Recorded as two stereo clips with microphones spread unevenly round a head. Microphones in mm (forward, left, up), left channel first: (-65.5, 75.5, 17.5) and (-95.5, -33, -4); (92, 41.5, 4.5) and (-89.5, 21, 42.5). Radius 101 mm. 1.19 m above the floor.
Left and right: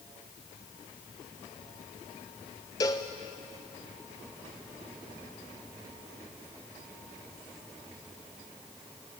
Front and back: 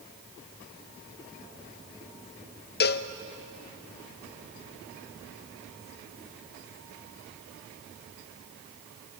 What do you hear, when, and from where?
2.8 s a cowbell: straight ahead, 0.7 m